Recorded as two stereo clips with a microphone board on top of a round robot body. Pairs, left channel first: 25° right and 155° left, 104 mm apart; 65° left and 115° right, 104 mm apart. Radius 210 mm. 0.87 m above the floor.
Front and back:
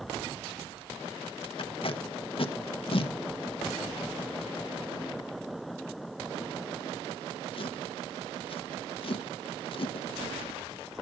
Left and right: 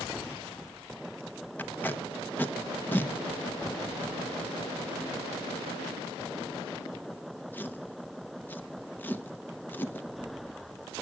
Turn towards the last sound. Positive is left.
turn(degrees=0)